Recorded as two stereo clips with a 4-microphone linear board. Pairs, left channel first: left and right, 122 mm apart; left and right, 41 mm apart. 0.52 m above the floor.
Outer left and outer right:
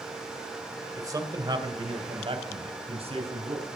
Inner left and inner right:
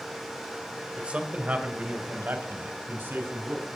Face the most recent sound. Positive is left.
turn(degrees=-60)  # may be behind; listen again after turning